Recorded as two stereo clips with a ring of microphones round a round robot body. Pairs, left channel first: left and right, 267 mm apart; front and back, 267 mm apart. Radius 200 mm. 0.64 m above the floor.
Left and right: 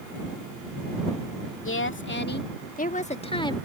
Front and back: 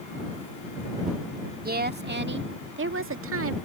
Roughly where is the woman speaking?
Behind left.